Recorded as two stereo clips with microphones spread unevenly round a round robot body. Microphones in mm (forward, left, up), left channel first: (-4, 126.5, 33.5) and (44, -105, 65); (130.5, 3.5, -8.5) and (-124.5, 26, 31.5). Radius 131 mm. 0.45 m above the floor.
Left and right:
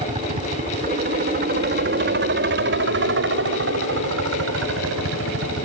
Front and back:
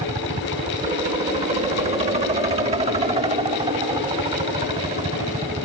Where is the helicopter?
125° right; by 5.6 s 115° right.